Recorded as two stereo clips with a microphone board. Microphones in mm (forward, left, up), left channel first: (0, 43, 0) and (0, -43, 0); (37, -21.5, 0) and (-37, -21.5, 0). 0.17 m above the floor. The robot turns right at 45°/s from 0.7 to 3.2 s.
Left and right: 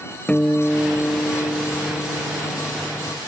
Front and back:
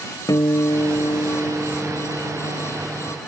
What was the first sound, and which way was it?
A guitar, 15° left.